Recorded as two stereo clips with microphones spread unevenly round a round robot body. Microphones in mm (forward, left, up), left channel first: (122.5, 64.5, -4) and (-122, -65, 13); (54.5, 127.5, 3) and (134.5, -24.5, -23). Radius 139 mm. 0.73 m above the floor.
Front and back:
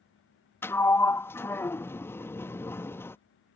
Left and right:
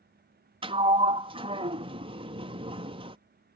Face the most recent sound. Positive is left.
turn(degrees=-45)